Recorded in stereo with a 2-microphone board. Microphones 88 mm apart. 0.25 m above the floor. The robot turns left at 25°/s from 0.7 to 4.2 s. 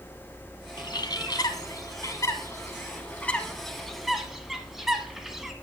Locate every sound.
0.8 s a bird: 60° left (ahead or behind), 0.9 m; by 5.5 s 5° right (ahead or behind), 0.9 m